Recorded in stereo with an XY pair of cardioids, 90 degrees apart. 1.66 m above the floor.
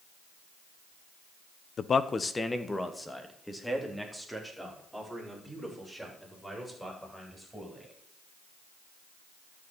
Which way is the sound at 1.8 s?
55° left.